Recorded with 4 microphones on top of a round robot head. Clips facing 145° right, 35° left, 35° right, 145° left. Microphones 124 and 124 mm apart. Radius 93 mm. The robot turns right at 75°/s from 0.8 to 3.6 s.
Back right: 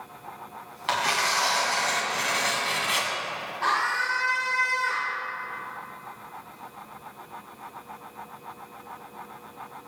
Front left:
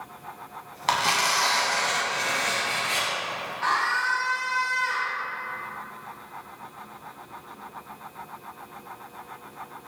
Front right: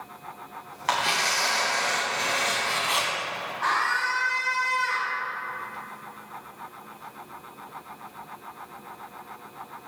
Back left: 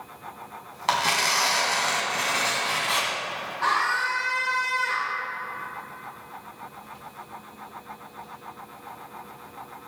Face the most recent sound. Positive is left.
turn(degrees=-155)